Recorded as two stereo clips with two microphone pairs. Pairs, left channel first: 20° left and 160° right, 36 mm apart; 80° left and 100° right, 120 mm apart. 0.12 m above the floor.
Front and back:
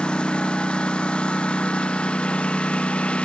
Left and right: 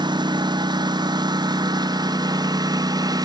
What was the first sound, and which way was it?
A lawn mower, 45° right.